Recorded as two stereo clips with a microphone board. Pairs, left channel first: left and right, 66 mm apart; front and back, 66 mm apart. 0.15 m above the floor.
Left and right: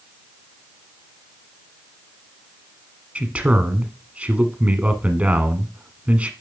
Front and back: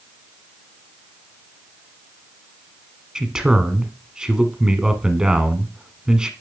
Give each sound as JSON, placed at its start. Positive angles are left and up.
{"t": 3.1, "sound": "a man speaking", "azimuth_deg": -115, "distance_m": 1.0}